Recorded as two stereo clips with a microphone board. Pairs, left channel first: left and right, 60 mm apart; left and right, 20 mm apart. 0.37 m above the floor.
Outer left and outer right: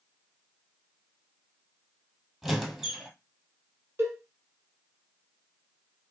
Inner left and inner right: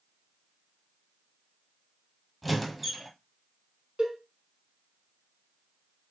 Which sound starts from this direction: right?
A cowbell, at 4.0 s.